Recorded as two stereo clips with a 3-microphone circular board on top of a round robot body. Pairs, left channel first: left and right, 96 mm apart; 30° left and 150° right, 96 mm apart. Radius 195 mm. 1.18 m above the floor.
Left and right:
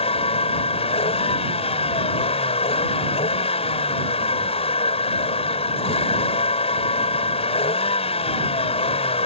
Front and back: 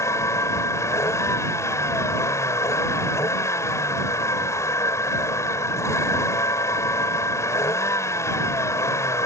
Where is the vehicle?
90° left.